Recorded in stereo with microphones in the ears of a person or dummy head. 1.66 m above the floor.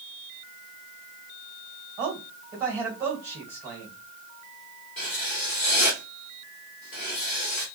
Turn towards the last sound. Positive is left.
turn(degrees=30)  # may be behind; listen again after turning